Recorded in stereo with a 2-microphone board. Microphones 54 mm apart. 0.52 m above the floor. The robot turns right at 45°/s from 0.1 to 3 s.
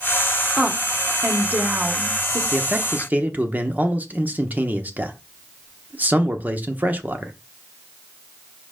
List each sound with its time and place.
0.6 s a woman speaking: 160° right, 1.6 m; by 2.4 s 75° right, 1.6 m
2.5 s a man speaking: 25° right (ahead or behind), 1.0 m; by 7.3 s 30° right (ahead or behind), 1.0 m